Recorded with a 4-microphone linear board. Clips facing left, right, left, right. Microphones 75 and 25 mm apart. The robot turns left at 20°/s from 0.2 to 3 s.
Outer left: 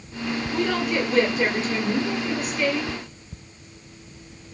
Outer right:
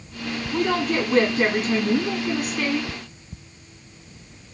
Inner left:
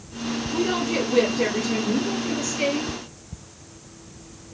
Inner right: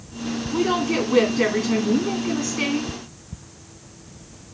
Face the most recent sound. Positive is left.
turn(degrees=-90)